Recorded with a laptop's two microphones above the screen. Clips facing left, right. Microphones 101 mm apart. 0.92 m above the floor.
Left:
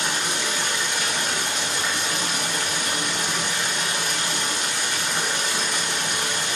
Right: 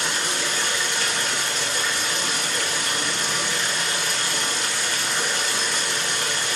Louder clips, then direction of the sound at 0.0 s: Even; 15° left (ahead or behind).